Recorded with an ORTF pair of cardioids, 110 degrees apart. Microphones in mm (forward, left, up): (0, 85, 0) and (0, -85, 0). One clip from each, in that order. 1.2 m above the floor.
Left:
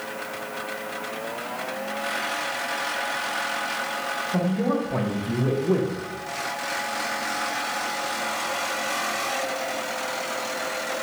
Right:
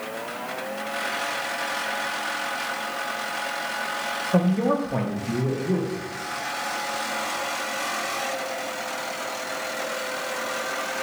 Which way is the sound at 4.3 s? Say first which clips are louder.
Right 5 dB; 40° right.